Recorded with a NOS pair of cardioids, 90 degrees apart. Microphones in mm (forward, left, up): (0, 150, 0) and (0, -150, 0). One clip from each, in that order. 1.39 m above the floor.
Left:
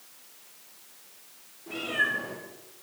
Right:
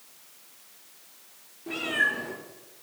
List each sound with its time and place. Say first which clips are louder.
1.7 s a cat meowing: right 2 dB; 55° right, 5 m